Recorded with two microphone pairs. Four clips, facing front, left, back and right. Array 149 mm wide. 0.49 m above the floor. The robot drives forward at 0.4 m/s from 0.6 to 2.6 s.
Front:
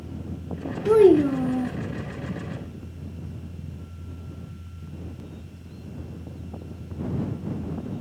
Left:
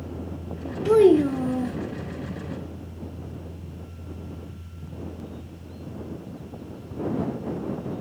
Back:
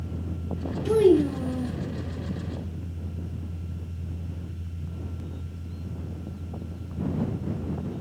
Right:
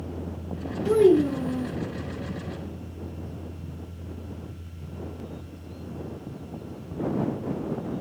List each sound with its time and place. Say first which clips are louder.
0.8 s a child speaking: left 2 dB, front 4 dB; 40° left, 0.6 m; by 1.8 s 80° left, 0.5 m